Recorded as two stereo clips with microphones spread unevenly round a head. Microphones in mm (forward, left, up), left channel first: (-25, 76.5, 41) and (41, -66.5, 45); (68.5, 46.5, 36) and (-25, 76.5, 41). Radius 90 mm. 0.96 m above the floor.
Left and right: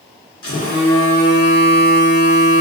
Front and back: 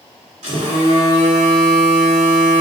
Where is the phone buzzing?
175° left, 1.8 m.